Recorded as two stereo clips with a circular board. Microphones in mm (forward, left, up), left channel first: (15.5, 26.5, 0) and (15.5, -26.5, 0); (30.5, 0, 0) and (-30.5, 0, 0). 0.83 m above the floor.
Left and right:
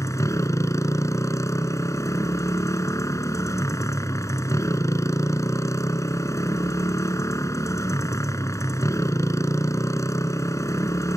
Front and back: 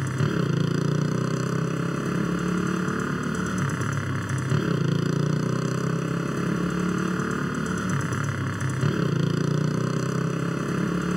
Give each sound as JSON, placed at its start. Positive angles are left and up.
{"t": 0.0, "sound": "a motorcycle", "azimuth_deg": 95}